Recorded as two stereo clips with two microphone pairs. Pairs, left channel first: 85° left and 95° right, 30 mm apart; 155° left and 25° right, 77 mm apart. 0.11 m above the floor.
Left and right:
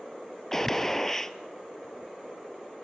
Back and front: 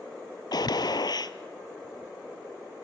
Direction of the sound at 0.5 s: 160° left.